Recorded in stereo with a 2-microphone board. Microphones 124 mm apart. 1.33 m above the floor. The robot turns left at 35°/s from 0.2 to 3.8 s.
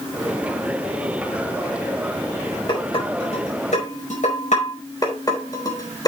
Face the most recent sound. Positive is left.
turn(degrees=30)  # may be behind; listen again after turning